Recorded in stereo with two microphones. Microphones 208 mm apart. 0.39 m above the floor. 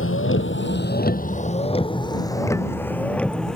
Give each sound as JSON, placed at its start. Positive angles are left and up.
{"t": 0.0, "sound": "a vehicle", "side_deg": 85}